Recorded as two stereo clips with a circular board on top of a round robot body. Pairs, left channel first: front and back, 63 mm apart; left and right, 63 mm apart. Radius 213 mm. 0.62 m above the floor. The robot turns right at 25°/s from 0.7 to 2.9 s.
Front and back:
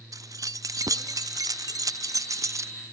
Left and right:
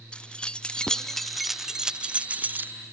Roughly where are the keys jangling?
Behind.